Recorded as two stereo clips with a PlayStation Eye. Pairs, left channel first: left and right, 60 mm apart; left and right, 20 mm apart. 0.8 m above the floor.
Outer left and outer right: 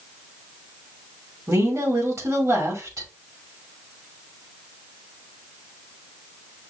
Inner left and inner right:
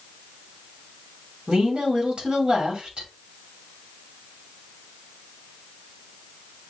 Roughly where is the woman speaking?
Right.